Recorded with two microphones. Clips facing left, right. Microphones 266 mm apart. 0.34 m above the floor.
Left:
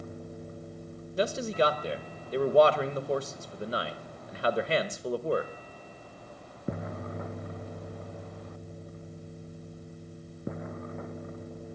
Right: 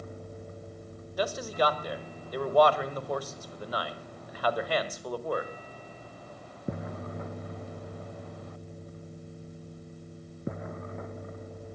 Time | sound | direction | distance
1.2 | a man speaking | 25° left (ahead or behind) | 0.9 m